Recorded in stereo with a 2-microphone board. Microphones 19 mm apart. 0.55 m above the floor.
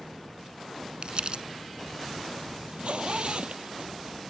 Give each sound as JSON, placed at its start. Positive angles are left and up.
{"t": 1.0, "sound": "crumpling", "side_deg": -55}
{"t": 2.7, "sound": "a zipper", "side_deg": -65}